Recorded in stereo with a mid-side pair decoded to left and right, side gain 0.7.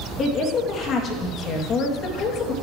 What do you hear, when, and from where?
0.2 s a woman speaking: 45° left, 2.5 m